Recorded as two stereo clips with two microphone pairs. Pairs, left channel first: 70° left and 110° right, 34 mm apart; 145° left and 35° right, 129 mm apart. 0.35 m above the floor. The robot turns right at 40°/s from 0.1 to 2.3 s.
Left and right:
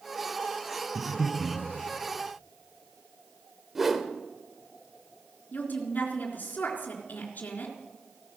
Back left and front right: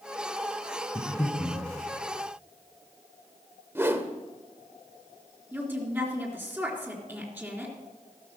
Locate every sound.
0.9 s breathing: 165° right, 3.5 m; by 1.6 s 135° right, 3.5 m
3.8 s a whoosh: 50° right, 1.1 m
5.5 s a woman speaking: 40° left, 3.5 m